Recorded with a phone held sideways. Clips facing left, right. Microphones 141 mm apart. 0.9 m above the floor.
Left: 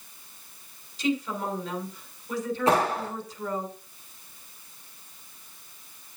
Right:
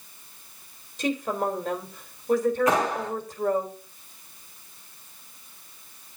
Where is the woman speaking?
50° right (ahead or behind), 3 m.